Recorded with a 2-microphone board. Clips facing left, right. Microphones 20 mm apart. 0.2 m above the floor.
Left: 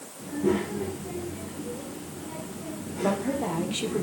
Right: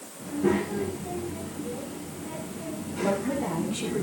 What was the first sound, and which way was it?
A child speaking, 20° right (ahead or behind).